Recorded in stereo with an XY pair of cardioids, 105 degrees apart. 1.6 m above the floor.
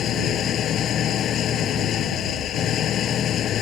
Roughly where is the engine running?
Ahead left.